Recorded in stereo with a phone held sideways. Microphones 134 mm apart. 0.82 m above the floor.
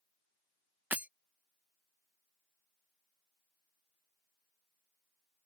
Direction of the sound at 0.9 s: 10° right (ahead or behind).